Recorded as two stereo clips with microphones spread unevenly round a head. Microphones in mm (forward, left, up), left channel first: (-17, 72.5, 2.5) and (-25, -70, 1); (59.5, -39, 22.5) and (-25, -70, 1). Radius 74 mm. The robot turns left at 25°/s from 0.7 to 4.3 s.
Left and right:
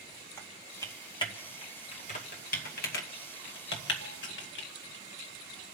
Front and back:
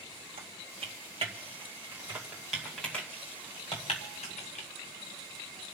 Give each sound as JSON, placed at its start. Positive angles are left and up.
{"t": 0.4, "sound": "typing on a keyboard", "azimuth_deg": 160, "distance_m": 2.0}